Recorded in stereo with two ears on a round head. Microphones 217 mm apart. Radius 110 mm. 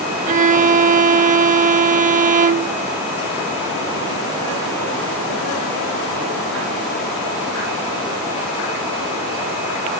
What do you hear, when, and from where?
0.3 s a violin: 35° right (ahead or behind)